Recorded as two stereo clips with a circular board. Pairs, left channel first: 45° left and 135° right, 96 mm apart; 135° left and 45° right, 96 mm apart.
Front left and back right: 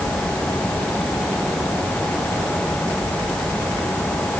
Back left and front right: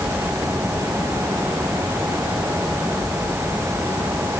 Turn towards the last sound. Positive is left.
No sound to turn to.